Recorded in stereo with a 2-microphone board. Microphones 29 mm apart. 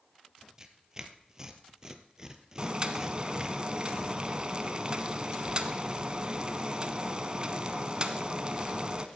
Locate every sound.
0.6 s tearing paper: 20° right (ahead or behind), 1.1 m
2.6 s boiling: 30° right (ahead or behind), 1.0 m